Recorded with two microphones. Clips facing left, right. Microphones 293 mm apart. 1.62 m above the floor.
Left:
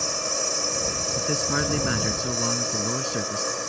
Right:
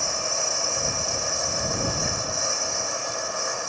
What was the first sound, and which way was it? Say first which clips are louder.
A lawn mower: left 1 dB; 40° left (ahead or behind).